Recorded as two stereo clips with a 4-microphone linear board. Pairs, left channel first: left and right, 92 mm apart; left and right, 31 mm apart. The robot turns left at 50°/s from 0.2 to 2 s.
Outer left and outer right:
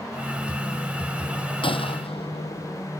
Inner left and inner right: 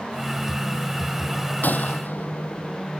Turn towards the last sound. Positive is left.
turn(degrees=80)